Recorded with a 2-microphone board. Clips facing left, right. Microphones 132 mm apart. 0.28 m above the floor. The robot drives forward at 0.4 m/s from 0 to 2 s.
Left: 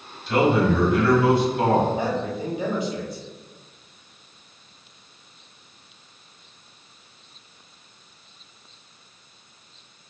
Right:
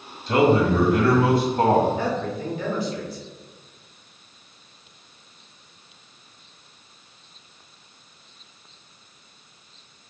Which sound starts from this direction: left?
A man speaking, at 2.0 s.